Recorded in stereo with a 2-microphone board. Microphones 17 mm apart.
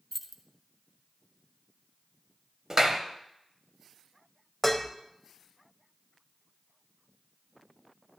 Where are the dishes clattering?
5° left (ahead or behind), 0.7 m.